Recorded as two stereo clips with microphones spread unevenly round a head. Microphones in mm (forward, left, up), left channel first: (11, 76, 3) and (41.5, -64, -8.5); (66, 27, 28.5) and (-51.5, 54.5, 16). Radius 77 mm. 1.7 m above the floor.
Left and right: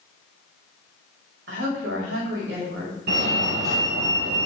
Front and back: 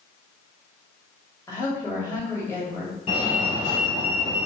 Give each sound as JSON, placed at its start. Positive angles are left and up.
{"t": 1.5, "sound": "a woman speaking", "azimuth_deg": -85, "distance_m": 4.0}
{"t": 3.1, "sound": "a fire alarm", "azimuth_deg": -70, "distance_m": 3.5}